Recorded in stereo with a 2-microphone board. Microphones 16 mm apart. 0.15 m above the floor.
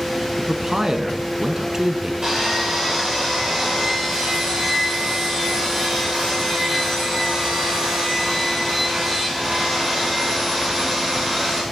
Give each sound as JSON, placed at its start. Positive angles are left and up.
{"t": 0.4, "sound": "a man speaking", "side_deg": -35, "distance_m": 1.3}
{"t": 2.2, "sound": "sawing", "side_deg": -40, "distance_m": 8.0}